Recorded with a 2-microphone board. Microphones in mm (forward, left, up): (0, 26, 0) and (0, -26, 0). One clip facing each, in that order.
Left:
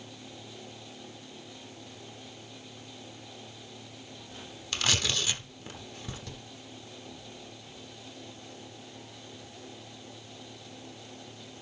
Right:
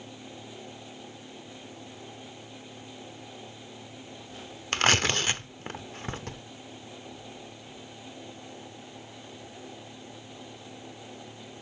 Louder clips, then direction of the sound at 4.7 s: Right 6 dB; 45° right (ahead or behind).